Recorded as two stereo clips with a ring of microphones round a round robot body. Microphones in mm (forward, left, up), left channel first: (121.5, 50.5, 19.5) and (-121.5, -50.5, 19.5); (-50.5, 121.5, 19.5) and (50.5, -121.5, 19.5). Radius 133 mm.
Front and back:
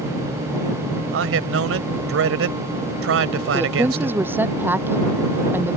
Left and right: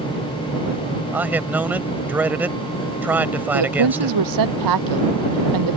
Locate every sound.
1.1 s a man speaking: 150° right
3.5 s a woman speaking: 75° right